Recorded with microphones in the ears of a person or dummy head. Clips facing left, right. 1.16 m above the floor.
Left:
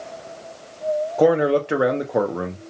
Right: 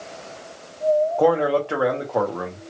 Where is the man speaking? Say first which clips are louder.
Left 2 dB; 20° left (ahead or behind), 0.6 m.